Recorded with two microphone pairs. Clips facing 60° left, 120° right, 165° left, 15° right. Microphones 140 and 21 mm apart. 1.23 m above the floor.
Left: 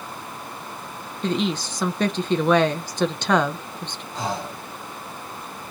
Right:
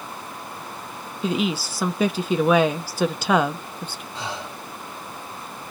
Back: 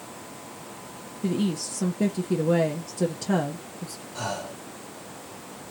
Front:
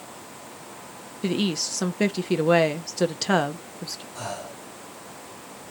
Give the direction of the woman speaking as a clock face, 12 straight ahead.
1 o'clock.